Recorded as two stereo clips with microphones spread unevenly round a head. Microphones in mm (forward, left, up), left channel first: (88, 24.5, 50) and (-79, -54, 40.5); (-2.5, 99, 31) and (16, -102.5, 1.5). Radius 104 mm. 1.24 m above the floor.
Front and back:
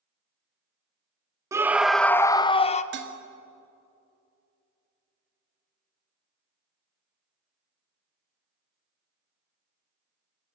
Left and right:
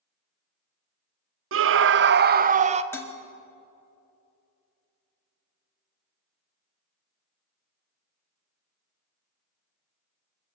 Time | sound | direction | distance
1.5 | a scream | 80° right | 0.8 m
2.9 | dishes clattering | 175° left | 1.9 m